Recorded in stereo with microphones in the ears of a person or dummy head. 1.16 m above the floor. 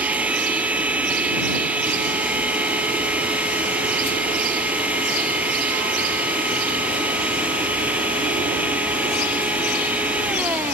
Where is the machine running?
5° right (ahead or behind).